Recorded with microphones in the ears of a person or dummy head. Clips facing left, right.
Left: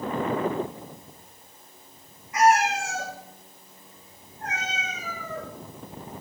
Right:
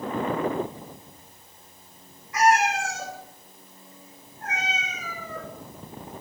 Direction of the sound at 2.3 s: 25° left (ahead or behind).